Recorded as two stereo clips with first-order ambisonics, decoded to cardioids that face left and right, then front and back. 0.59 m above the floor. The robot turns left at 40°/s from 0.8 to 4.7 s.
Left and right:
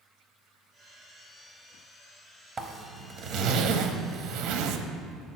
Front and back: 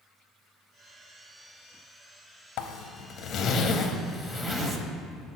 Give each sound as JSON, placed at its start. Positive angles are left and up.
{"t": 2.6, "sound": "a zipper", "azimuth_deg": -20, "distance_m": 0.6}